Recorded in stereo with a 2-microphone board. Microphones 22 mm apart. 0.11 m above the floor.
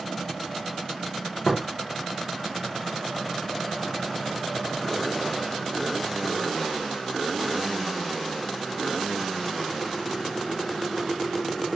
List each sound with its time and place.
1.4 s tapping: 50° left (ahead or behind), 5.5 m